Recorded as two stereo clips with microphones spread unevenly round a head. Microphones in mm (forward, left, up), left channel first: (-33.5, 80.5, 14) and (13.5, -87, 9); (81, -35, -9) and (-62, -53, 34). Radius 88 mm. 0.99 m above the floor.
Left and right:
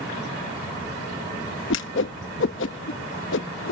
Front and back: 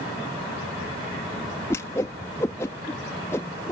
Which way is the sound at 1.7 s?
80° left.